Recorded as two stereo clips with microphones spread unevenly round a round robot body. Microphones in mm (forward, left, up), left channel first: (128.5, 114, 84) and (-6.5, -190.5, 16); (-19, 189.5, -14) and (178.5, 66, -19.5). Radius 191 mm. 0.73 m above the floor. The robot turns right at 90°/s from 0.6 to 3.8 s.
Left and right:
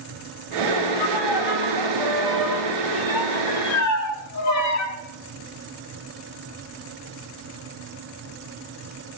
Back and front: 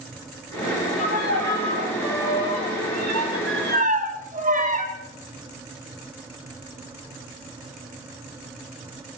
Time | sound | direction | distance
1.0 | a violin | 130° left | 6 m